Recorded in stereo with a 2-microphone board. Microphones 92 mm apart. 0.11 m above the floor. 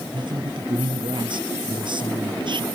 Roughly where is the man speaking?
Right.